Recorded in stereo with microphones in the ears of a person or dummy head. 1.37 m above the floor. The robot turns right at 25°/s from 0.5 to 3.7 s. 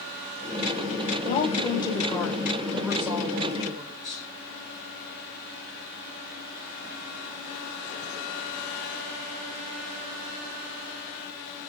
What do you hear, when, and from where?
1.2 s a woman speaking: 145° left, 4.5 m; by 4.2 s 155° right, 4.5 m